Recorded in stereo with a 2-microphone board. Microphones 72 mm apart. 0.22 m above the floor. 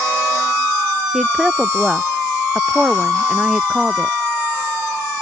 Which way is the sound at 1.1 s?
10° right (ahead or behind).